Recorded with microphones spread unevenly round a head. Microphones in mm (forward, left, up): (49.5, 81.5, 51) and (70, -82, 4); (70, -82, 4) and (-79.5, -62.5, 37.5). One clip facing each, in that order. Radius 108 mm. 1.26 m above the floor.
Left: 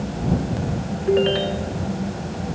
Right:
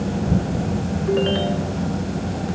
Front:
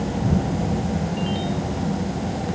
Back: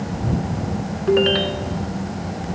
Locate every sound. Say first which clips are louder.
1.1 s a ringtone: left 2 dB, back 8 dB; 175° left